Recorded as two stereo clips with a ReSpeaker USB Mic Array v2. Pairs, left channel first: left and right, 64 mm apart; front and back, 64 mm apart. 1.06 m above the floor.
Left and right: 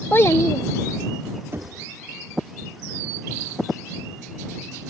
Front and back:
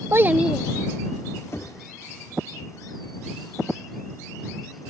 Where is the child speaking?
145° left; by 1.4 s 75° left.